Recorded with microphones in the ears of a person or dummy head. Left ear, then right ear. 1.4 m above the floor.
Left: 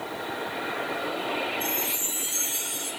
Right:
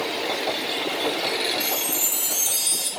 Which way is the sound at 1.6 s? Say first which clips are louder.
Right 4 dB; 50° right (ahead or behind).